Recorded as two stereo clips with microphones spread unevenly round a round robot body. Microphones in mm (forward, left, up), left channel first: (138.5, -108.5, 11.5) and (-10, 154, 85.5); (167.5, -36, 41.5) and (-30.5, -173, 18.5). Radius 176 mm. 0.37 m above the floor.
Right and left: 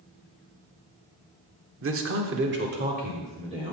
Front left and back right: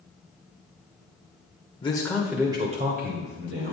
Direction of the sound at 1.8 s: 95° left.